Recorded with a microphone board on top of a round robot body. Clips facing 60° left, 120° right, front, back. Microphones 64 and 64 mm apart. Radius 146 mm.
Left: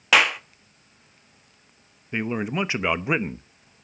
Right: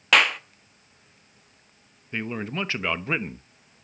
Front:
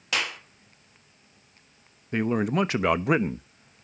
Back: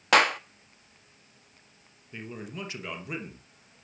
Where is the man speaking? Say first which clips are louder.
Left 4 dB, front 15 dB; 15° right, 1.1 m.